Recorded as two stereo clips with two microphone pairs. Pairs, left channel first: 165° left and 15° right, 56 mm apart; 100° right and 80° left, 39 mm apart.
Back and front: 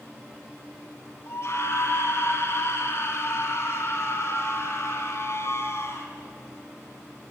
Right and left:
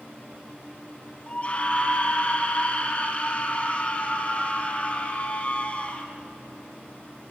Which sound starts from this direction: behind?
A scream, at 1.3 s.